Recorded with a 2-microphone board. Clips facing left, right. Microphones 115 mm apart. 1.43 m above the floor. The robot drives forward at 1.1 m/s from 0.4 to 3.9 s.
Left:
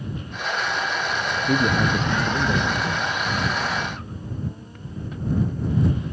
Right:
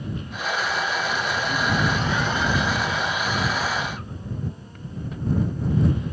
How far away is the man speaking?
About 0.7 m.